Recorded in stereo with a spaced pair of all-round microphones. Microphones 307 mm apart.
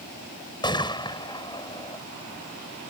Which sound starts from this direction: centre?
A gunshot, at 0.6 s.